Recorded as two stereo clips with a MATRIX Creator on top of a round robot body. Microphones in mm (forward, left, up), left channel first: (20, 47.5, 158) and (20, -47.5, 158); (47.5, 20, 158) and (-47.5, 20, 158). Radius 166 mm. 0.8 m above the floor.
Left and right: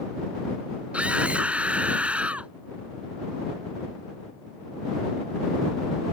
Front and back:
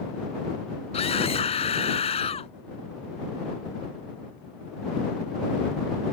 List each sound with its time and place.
0.9 s a scream: 10° right